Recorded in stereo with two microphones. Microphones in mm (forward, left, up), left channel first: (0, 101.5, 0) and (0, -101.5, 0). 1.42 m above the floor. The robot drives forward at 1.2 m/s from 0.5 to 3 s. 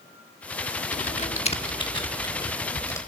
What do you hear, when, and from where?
0.9 s typing on a keyboard: 35° left (ahead or behind), 1.1 m; by 3.0 s 15° left (ahead or behind), 2.5 m